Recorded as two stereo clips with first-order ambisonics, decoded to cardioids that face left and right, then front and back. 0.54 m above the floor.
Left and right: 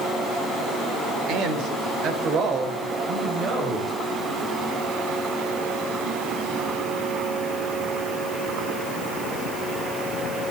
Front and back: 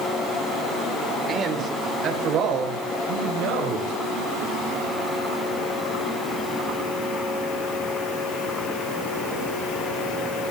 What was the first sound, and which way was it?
A man speaking, 115° right.